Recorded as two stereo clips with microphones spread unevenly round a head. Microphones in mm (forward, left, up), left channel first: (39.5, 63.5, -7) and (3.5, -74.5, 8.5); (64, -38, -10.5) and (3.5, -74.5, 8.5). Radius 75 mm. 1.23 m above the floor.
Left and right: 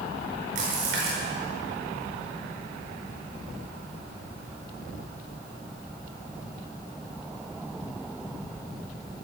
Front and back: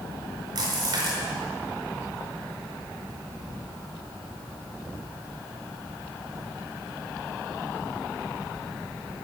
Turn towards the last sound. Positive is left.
turn(degrees=-145)